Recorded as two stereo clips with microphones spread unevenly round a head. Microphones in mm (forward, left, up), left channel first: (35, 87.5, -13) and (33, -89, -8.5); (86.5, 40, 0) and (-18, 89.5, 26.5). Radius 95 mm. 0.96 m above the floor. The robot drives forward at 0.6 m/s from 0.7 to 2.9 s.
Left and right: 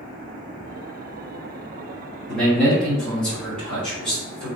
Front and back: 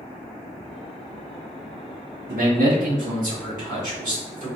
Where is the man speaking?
175° left, 1.3 m.